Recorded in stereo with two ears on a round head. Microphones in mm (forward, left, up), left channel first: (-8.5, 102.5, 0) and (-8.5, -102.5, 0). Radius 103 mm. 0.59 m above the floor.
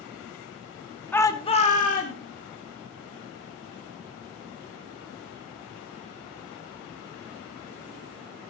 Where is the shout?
10° left (ahead or behind), 1.2 m; by 2.2 s 40° left (ahead or behind), 1.8 m.